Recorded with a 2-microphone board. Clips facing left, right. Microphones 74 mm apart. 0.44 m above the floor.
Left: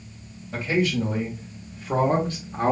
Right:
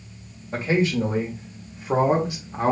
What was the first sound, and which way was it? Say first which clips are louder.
A man speaking: right 2 dB; 45° right (ahead or behind).